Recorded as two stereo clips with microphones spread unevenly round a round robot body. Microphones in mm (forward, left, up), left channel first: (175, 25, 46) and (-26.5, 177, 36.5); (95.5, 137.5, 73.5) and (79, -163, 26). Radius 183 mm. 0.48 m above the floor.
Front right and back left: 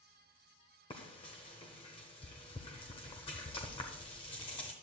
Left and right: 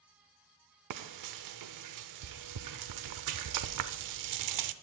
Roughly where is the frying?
Right.